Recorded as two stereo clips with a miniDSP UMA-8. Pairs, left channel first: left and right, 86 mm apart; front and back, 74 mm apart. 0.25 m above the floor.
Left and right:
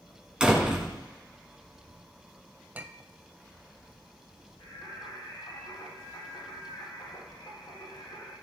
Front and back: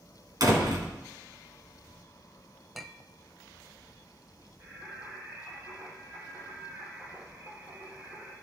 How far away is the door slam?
About 2 m.